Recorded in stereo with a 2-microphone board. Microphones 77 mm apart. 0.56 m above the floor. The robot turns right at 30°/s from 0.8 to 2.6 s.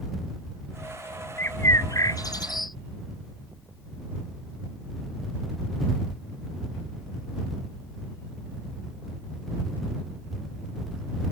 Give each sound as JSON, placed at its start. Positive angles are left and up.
{"t": 1.4, "sound": "a bird", "azimuth_deg": 30}